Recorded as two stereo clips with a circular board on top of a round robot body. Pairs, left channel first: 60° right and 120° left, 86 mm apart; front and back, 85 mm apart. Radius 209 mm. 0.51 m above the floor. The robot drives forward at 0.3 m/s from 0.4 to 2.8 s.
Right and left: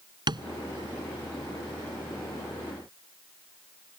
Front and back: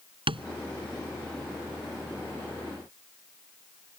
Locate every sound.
0.3 s tapping: 155° left